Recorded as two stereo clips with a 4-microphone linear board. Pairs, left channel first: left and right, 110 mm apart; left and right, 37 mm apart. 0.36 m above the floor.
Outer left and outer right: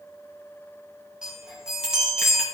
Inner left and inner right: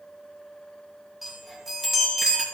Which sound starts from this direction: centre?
A chime, at 1.2 s.